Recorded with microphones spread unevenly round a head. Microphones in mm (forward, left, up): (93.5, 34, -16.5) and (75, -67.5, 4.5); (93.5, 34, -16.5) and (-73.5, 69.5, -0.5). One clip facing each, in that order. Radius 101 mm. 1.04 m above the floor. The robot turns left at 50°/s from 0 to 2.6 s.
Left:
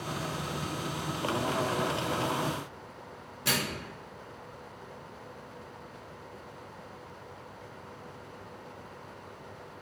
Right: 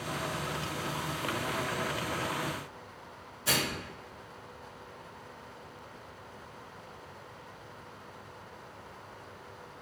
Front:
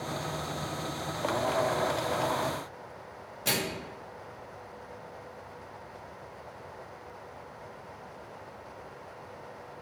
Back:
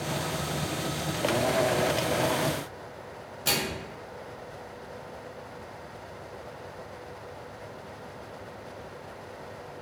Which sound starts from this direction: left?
A microwave, at 3.5 s.